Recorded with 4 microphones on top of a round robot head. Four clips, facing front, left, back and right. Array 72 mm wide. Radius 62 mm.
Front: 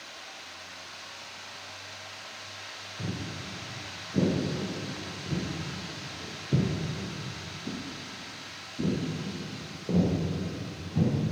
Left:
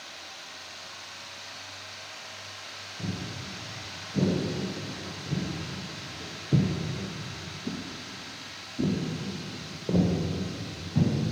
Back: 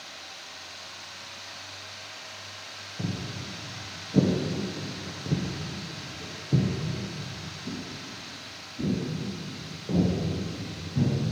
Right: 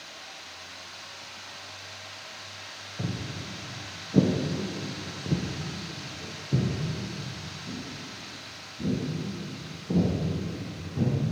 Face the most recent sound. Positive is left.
turn(degrees=75)